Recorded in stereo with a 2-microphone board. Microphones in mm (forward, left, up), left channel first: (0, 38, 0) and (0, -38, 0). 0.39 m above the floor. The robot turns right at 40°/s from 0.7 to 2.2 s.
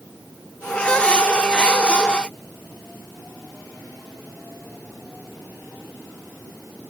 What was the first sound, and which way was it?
Only background noise.